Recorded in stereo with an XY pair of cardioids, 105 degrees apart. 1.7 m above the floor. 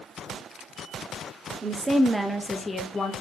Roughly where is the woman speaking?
Ahead right.